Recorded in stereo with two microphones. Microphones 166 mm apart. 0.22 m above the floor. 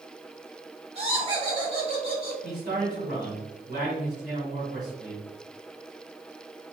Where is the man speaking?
55° right (ahead or behind), 1.9 m.